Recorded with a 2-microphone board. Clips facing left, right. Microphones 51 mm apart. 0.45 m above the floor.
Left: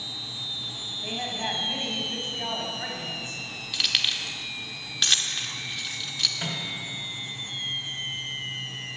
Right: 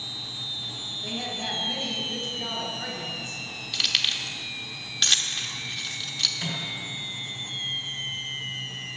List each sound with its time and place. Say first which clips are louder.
1.0 s a woman speaking: left 2 dB; 35° left (ahead or behind), 2.5 m
3.7 s keys jangling: even; centre (ahead or behind), 0.8 m
6.4 s a microwave: even; 35° left (ahead or behind), 2.5 m